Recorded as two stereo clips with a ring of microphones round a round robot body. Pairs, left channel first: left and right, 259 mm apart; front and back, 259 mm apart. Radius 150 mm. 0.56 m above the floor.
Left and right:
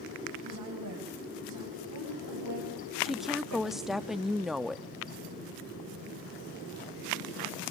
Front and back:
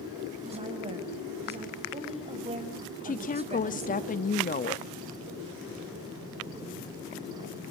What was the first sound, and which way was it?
A woman speaking, 115° right.